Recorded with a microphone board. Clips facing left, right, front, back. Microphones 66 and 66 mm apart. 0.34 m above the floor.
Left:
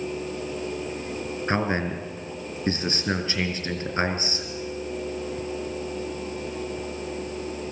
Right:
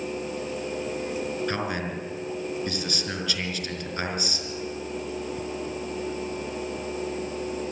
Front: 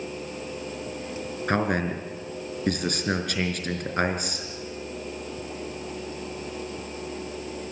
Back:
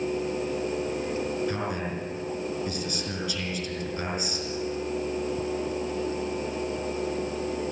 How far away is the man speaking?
About 4.5 m.